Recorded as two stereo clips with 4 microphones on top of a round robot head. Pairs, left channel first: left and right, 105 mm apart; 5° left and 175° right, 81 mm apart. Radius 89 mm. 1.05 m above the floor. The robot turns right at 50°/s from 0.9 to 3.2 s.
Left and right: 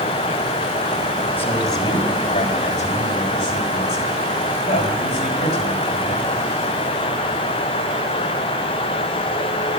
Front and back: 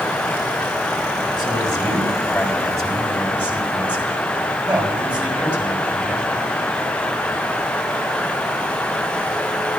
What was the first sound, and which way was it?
A man speaking, 20° left.